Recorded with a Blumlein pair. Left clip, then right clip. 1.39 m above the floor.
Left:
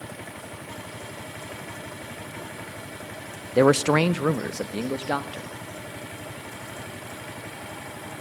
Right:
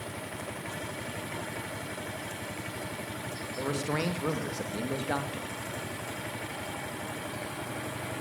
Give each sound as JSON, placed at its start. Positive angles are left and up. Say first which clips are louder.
{"t": 3.6, "sound": "a man speaking", "louder": "left 14 dB", "azimuth_deg": 40, "distance_m": 0.9}